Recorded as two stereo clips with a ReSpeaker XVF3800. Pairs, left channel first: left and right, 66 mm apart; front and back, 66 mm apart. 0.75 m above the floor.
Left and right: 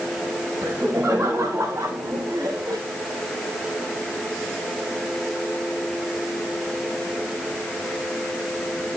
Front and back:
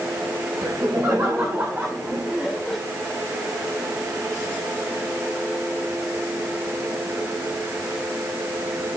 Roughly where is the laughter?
Behind right.